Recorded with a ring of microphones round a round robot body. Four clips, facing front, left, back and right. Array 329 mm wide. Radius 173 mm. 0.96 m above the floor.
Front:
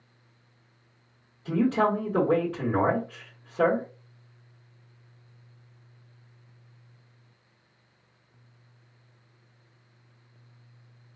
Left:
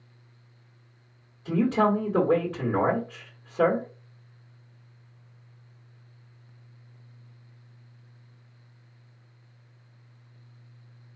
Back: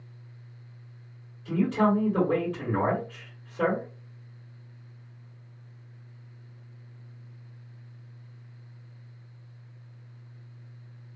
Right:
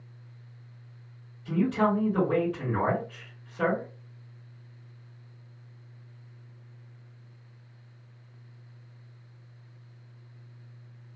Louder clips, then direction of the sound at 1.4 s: Left 2 dB, front 1 dB; 50° left.